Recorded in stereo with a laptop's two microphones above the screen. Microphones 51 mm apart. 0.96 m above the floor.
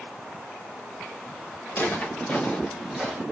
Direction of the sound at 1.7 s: 45° left (ahead or behind).